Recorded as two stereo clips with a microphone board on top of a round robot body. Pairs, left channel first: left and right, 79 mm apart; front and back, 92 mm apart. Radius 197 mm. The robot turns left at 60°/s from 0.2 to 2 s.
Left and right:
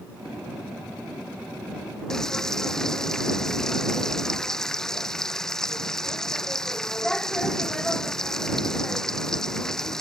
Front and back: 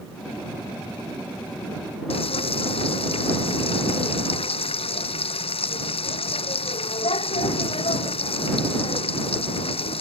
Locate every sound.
2.1 s frying: 5° left